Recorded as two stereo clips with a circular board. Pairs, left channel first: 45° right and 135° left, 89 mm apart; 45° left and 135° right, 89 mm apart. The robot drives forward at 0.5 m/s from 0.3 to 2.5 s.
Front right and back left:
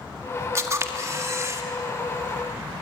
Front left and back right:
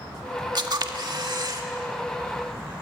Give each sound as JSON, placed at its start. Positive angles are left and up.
{"t": 0.6, "sound": "a camera shutter", "azimuth_deg": -170, "distance_m": 1.7}